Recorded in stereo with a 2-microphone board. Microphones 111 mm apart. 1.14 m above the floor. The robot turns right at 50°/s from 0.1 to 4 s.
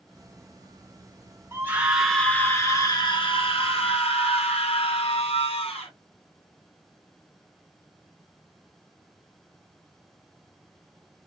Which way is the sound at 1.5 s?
25° right.